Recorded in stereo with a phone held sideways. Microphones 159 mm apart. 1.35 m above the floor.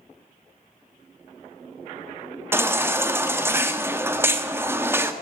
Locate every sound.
2.5 s a baby crying: 15° right (ahead or behind), 0.9 m